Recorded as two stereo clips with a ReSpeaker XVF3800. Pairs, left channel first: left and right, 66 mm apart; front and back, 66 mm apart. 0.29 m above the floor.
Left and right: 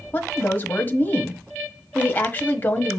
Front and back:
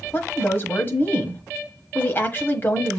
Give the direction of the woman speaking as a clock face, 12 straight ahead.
11 o'clock.